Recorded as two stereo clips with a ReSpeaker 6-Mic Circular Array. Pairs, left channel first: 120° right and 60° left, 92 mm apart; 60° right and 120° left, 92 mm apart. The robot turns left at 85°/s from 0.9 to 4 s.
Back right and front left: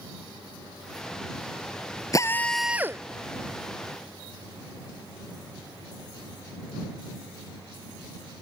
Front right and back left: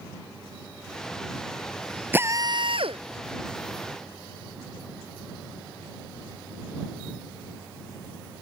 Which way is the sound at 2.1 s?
170° right.